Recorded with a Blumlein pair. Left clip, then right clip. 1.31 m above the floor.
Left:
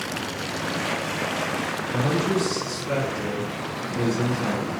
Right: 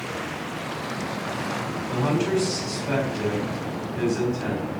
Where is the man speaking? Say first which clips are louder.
Right 1 dB; 45° right, 1.3 m.